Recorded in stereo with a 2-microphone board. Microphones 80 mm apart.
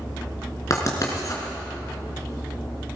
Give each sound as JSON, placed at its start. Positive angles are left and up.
{"t": 0.7, "sound": "writing", "side_deg": 45, "distance_m": 3.0}